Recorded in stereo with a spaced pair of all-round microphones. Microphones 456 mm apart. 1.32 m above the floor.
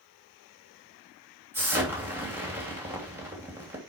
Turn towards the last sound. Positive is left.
turn(degrees=-5)  # may be behind; listen again after turning